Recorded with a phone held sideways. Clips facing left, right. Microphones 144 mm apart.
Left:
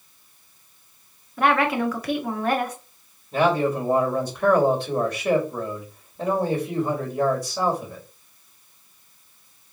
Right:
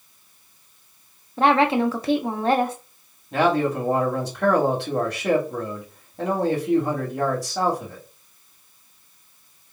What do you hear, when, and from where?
1.4 s a woman speaking: 30° right (ahead or behind), 1.1 m
3.3 s a man speaking: 75° right (ahead or behind), 3 m